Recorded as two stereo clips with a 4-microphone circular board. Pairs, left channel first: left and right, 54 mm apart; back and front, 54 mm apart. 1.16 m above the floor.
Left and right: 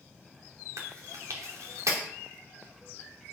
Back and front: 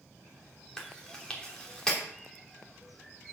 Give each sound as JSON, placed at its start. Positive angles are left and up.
{"t": 0.8, "sound": "chewing", "azimuth_deg": -105, "distance_m": 3.0}